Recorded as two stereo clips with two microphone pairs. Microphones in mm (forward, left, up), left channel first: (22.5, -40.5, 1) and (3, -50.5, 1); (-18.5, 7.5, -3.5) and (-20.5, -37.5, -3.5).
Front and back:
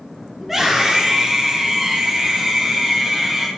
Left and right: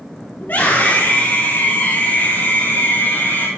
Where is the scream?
120° left, 2.5 m.